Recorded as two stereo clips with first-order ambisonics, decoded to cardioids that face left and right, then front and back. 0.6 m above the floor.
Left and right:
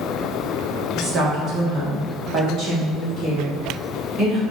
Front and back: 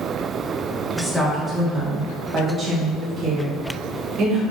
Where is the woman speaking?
70° right, 1.1 m; by 4.4 s 140° right, 2 m.